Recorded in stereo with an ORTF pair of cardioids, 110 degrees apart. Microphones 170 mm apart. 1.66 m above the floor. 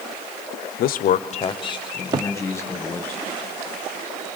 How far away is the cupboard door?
About 0.7 m.